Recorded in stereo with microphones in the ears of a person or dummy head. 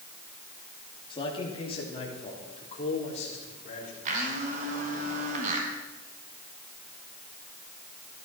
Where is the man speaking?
30° left (ahead or behind), 3 m; by 4.0 s 40° left (ahead or behind), 4 m.